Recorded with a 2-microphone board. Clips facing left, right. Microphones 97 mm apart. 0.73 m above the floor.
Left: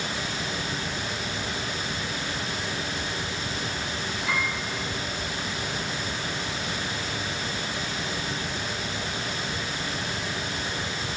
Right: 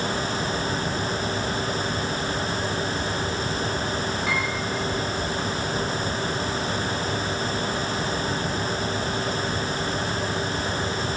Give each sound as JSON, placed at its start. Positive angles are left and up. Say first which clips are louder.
{"t": 4.3, "sound": "a piano", "louder": "left 1 dB", "side_deg": -75, "distance_m": 4.0}